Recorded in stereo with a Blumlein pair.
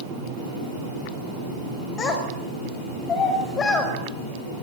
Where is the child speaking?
20° left, 5.5 m.